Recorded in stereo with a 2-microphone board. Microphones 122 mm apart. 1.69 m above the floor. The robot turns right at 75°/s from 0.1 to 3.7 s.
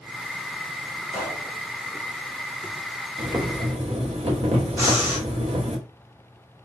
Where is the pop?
10° left (ahead or behind), 2 m; by 1.5 s 5° right (ahead or behind), 2 m.